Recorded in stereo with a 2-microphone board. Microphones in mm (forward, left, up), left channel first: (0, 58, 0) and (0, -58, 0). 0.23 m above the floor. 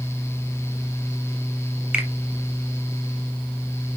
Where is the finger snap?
5° right (ahead or behind), 3 m.